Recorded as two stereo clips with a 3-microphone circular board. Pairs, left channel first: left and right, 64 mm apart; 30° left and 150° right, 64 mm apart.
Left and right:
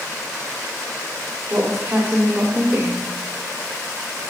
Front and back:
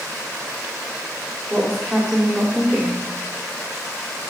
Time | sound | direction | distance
1.5 | a woman speaking | 60° right | 1.8 m